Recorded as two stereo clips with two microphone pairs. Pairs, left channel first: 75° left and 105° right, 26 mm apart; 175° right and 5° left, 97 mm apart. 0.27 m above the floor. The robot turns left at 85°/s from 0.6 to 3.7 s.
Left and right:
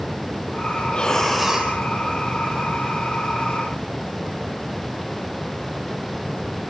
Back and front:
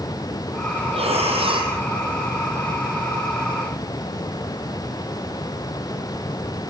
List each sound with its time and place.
0.9 s breathing: 30° left, 4 m; by 1.7 s 40° right, 4 m